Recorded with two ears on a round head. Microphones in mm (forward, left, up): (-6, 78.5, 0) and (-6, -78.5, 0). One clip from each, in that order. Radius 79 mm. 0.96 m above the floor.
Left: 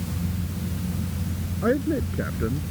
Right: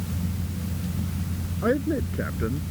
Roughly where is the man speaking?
Centre.